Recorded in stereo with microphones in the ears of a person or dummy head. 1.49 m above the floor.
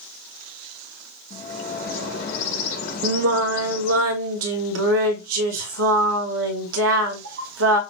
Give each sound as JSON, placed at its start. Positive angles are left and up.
{"t": 1.3, "sound": "a bird", "side_deg": 50, "distance_m": 4.0}
{"t": 3.0, "sound": "singing", "side_deg": -70, "distance_m": 1.5}